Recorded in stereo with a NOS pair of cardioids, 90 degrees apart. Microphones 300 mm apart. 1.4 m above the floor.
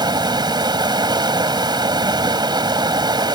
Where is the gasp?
I don't hear a gasp.